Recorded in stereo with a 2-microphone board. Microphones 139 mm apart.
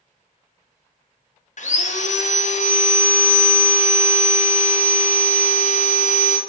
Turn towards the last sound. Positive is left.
turn(degrees=55)  # may be behind; listen again after turning